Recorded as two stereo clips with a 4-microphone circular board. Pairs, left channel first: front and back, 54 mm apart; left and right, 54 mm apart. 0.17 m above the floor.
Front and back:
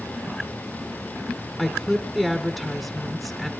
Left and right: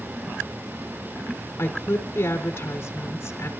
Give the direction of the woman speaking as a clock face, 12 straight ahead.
9 o'clock.